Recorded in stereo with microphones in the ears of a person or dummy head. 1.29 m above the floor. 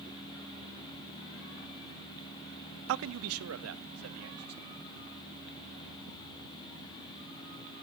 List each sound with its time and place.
2.9 s a man speaking: 70° right (ahead or behind), 0.5 m; by 4.7 s 85° right, 2 m